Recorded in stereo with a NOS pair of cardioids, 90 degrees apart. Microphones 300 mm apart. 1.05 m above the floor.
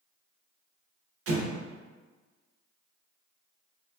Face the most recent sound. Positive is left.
turn(degrees=-55)